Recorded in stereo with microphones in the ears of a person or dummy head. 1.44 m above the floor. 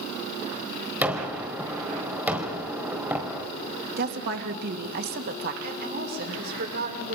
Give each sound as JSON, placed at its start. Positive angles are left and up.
{"t": 1.0, "sound": "a gunshot", "side_deg": -5, "distance_m": 4.0}
{"t": 4.0, "sound": "a woman speaking", "side_deg": -55, "distance_m": 1.9}
{"t": 5.6, "sound": "a woman speaking", "side_deg": -55, "distance_m": 5.0}